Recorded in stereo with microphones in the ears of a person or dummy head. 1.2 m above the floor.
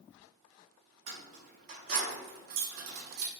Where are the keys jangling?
40° right (ahead or behind), 1.7 m; by 3.3 s 60° right (ahead or behind), 0.7 m.